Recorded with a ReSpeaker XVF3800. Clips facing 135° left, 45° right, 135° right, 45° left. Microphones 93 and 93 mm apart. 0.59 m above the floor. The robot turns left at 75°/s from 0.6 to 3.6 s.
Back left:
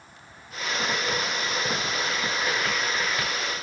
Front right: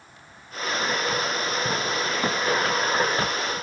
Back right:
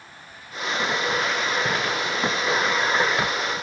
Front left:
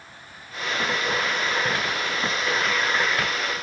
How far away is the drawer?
No drawer in this recording.